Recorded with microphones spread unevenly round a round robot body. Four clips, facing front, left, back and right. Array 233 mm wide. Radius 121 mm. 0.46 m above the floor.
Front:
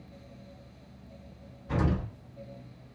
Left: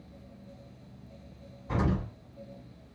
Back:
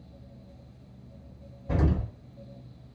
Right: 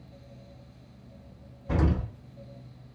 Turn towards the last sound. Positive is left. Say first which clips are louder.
# right 2 dB, back 1 dB
turn(degrees=-150)